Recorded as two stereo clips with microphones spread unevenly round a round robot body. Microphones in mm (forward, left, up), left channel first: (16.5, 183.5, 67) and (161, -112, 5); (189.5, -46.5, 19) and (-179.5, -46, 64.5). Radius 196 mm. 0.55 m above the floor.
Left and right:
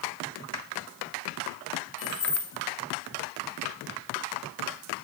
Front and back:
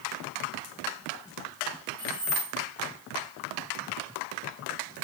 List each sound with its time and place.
2.0 s keys jangling: 95° left, 2 m